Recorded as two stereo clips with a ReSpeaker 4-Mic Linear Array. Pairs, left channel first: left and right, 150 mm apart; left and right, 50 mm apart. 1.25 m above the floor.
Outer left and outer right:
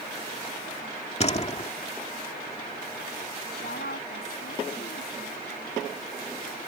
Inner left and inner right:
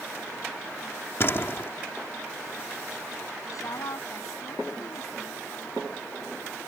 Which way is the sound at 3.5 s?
85° left.